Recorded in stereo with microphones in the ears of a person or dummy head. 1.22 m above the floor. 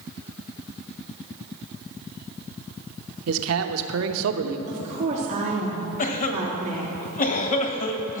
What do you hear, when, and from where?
3.3 s a man speaking: 80° right, 0.9 m
4.7 s a woman speaking: 35° right (ahead or behind), 3 m
6.0 s a cough: 40° left (ahead or behind), 1.2 m